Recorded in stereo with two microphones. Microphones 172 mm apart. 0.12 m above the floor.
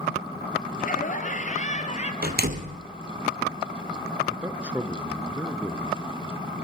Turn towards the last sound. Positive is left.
turn(degrees=-10)  # may be behind; listen again after turning